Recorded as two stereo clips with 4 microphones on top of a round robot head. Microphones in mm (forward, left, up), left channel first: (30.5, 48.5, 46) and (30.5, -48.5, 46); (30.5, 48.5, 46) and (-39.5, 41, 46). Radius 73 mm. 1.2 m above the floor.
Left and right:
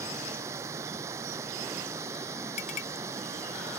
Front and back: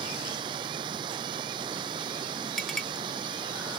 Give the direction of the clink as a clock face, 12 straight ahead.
9 o'clock.